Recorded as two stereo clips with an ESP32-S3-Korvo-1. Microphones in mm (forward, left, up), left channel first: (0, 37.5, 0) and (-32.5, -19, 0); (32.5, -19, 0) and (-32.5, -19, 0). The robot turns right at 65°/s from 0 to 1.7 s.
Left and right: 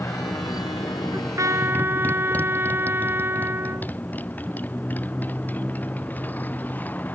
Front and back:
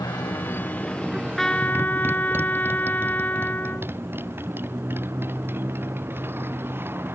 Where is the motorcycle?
15° left; by 7.2 s 125° left.